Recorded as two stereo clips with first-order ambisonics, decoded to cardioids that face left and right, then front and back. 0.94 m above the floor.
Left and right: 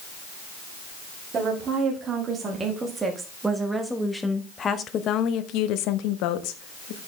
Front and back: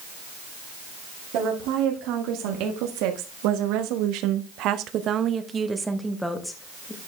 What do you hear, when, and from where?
1.3 s a woman speaking: 150° right, 2.5 m; by 7.0 s 75° left, 1.6 m